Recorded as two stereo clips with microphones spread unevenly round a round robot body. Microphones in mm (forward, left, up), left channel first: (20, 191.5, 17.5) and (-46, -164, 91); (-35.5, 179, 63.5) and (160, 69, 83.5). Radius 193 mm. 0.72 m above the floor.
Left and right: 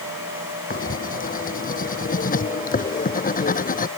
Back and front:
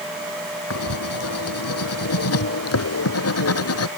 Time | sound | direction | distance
0.7 | writing | 150° left | ?